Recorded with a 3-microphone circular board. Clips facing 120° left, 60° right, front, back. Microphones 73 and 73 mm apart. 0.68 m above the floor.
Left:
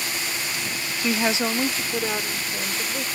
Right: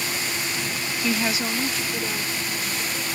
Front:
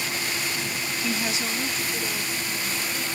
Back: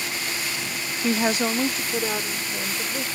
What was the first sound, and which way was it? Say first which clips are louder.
A woman speaking: left 2 dB, back 8 dB; 175° right.